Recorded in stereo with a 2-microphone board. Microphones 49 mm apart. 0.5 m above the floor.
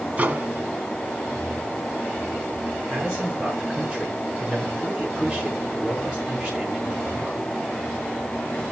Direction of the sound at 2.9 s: 20° right (ahead or behind).